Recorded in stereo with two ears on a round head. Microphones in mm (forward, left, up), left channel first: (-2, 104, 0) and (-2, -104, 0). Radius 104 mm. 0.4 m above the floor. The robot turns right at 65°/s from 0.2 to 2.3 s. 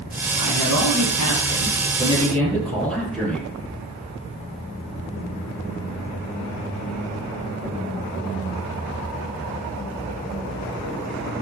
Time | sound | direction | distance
0.3 | a man speaking | 50° left | 9 m